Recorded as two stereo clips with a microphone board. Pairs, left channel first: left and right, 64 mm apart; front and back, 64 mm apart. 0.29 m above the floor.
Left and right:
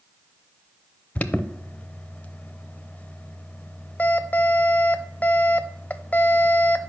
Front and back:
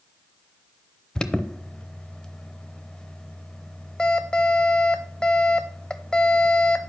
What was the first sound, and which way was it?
An alarm, 65° left.